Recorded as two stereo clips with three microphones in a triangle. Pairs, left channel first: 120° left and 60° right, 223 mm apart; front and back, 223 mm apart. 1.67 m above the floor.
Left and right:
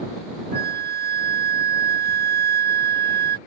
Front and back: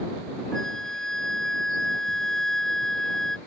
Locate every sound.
0.5 s a flute: 85° right